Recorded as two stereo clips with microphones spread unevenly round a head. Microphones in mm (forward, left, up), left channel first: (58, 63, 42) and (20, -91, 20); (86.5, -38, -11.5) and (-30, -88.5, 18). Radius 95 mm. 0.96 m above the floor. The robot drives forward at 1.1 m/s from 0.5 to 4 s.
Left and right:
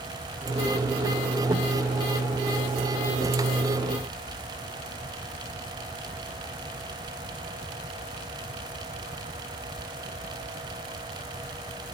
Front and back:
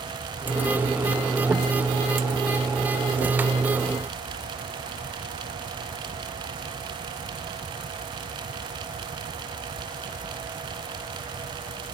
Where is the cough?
No cough in this recording.